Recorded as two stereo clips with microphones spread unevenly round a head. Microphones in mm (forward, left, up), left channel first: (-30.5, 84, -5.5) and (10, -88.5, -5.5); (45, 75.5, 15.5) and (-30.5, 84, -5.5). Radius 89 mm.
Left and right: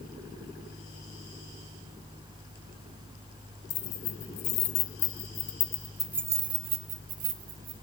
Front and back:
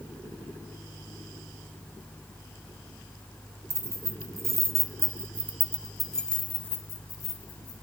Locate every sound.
3.7 s keys jangling: 120° left, 1.5 m; by 7.7 s 45° right, 1.4 m